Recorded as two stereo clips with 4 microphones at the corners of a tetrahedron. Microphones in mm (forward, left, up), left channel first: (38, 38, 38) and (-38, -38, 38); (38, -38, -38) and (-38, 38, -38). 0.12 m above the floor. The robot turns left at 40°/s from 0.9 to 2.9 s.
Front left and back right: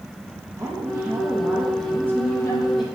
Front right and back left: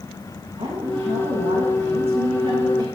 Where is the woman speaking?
175° left, 5 m; by 2.9 s 95° left, 5 m.